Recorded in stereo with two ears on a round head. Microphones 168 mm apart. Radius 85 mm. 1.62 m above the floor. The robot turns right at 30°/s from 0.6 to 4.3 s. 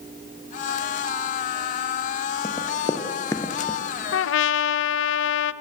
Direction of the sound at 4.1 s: 80° left.